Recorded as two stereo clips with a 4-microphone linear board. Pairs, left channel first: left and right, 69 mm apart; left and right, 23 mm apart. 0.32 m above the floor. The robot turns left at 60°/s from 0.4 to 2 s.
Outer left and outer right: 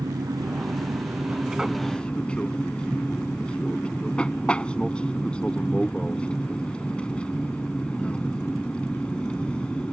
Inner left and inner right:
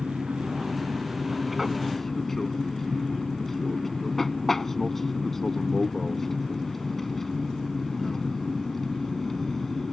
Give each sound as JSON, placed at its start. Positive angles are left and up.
{"t": 0.0, "sound": "an aircraft", "azimuth_deg": -100}